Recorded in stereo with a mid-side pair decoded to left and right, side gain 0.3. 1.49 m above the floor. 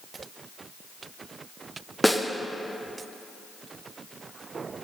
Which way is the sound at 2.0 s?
5° left.